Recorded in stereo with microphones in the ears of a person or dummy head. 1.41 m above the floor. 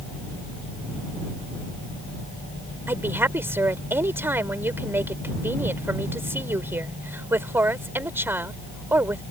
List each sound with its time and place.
2.9 s a woman speaking: 10° right (ahead or behind)